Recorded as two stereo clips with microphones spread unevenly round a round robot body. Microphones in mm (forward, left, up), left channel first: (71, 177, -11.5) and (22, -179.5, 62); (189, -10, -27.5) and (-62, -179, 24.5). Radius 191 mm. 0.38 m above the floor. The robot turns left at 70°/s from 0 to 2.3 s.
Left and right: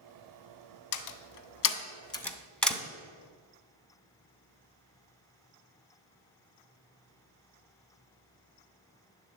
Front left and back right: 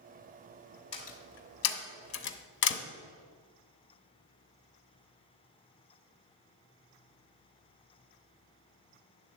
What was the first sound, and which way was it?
A door slam, 100° left.